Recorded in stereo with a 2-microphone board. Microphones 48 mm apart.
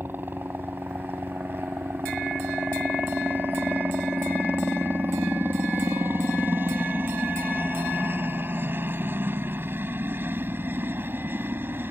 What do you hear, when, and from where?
0.0 s a helicopter: 45° right (ahead or behind)